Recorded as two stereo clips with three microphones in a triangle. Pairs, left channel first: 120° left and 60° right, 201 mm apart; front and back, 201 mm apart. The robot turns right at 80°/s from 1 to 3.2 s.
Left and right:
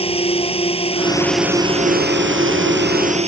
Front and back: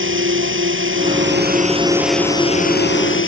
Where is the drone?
Straight behind; by 3.3 s 5° right.